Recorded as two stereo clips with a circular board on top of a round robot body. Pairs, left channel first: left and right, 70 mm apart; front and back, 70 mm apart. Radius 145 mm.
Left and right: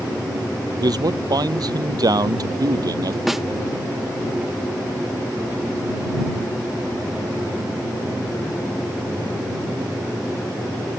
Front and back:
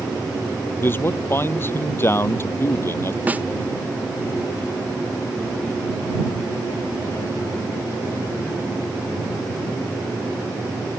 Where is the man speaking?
60° right.